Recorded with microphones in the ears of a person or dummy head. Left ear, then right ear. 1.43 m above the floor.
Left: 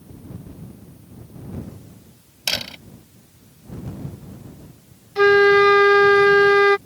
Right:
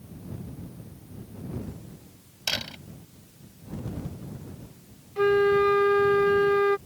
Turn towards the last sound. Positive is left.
turn(degrees=45)  # may be behind; listen again after turning